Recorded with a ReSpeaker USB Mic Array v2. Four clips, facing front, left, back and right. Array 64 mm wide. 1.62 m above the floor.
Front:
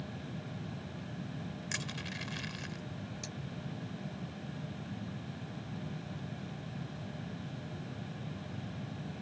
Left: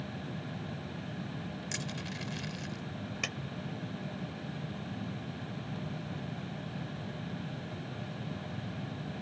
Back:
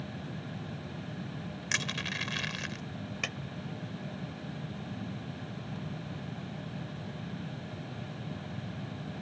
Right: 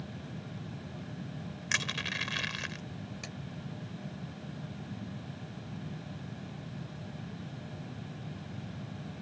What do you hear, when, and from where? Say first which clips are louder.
1.7 s crushing: right 5 dB, back 9 dB; 125° right
3.2 s a clap: left 6 dB, back 8 dB; 150° left